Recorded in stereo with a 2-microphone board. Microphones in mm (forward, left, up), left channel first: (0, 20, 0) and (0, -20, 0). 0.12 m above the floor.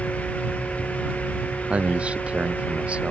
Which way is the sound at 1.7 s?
30° right (ahead or behind).